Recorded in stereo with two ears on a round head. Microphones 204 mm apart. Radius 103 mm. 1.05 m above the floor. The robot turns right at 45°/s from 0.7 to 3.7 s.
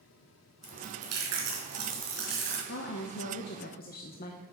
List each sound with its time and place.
0.6 s chewing: 115° right, 3.5 m; by 2.6 s 30° right, 3.5 m
2.7 s a woman speaking: 75° left, 0.7 m; by 4.4 s 120° left, 0.7 m